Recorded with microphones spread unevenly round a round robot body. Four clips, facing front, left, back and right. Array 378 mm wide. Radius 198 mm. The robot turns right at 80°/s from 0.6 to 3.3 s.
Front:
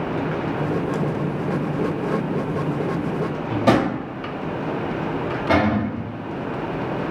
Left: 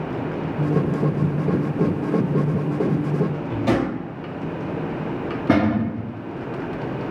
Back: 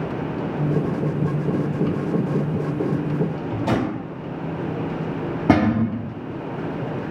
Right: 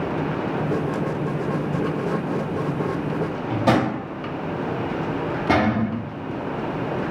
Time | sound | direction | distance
3.5 | a drawer | 30° right | 1.7 m
5.5 | a cupboard door | 165° left | 0.7 m